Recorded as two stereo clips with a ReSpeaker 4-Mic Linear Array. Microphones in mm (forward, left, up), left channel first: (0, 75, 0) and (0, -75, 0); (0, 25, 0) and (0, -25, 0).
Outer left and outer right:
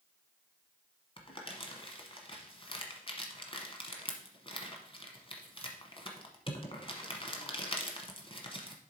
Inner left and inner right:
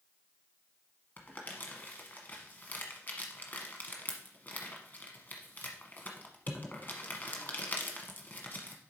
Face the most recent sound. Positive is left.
turn(degrees=40)  # may be behind; listen again after turning